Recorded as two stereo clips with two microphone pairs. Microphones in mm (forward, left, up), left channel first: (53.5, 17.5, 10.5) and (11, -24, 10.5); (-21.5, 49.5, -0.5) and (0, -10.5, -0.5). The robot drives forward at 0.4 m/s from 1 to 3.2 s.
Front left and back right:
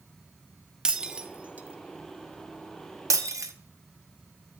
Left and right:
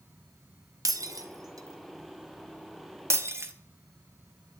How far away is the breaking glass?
About 0.9 m.